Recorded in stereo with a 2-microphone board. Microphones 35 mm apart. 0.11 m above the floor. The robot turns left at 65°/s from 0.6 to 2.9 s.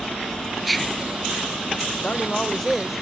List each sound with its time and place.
0.6 s whispering: 175° right; by 1.1 s 155° left
2.0 s a man speaking: 50° left; by 3.0 s 5° right